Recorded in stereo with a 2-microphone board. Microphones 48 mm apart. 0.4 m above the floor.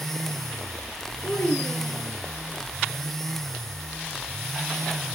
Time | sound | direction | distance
1.2 | a child speaking | 45° left (ahead or behind) | 4.5 m